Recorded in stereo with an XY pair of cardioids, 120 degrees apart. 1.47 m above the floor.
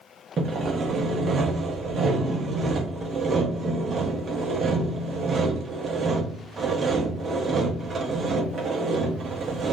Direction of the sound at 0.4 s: 35° right.